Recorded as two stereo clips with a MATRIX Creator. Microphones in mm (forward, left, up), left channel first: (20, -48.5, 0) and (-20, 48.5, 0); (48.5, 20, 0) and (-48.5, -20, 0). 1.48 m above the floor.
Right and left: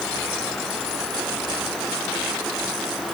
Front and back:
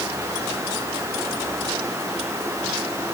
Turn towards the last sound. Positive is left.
No sound to turn to.